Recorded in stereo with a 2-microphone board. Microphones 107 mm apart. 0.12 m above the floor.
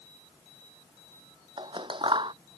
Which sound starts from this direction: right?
Scissors, at 1.6 s.